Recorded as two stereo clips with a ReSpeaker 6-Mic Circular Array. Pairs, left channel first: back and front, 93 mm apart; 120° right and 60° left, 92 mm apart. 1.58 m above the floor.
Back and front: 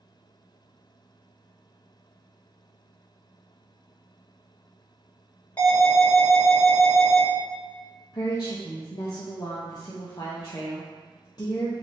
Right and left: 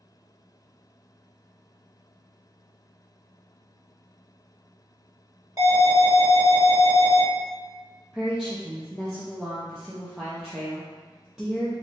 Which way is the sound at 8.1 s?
140° left.